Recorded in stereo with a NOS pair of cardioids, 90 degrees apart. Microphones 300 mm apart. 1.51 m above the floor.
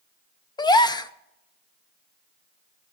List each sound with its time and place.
0.6 s a gasp: 15° left, 0.6 m